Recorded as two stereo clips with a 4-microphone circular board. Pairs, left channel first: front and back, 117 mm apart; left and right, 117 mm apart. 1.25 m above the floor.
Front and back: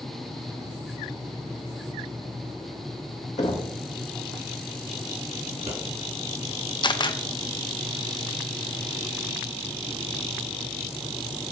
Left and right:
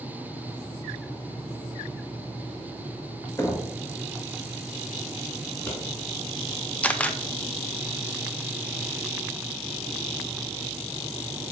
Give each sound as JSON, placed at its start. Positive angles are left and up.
{"t": 3.4, "sound": "knocking", "azimuth_deg": 20, "distance_m": 1.3}
{"t": 5.5, "sound": "scissors", "azimuth_deg": 165, "distance_m": 2.5}
{"t": 6.8, "sound": "a camera shutter", "azimuth_deg": 15, "distance_m": 0.5}